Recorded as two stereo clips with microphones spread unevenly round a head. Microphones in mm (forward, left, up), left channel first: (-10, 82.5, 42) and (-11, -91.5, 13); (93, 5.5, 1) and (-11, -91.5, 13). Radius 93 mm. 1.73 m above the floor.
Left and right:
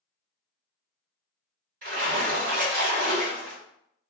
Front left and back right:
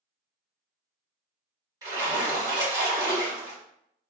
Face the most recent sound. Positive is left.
turn(degrees=-110)